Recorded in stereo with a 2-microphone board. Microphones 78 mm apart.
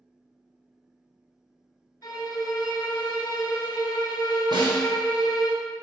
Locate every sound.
2.0 s a violin: 60° left (ahead or behind), 0.7 m
4.5 s a snare drum: 80° right, 1.3 m